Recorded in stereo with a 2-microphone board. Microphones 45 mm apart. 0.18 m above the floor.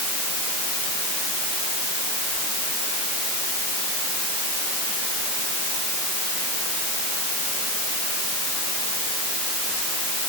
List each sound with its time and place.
Only background noise.